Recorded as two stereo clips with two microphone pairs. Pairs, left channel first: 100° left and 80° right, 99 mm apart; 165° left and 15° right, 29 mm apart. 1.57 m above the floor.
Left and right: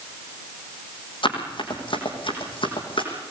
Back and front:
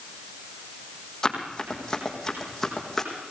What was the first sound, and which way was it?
Running footsteps, 100° left.